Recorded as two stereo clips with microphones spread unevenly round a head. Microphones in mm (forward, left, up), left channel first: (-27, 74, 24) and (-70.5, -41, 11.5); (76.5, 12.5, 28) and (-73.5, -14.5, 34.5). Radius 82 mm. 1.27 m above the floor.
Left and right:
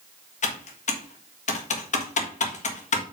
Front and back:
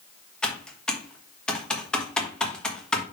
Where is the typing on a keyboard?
95° left, 1.7 m.